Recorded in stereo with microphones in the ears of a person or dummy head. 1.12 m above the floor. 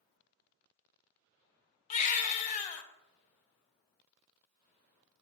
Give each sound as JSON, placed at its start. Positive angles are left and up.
{"t": 1.9, "sound": "a baby crying", "side_deg": 35, "distance_m": 0.9}